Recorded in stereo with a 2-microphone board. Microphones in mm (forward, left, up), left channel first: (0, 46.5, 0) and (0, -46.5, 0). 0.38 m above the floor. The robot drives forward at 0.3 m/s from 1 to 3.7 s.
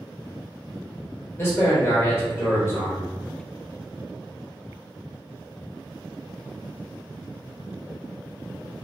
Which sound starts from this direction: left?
A man speaking, at 1.4 s.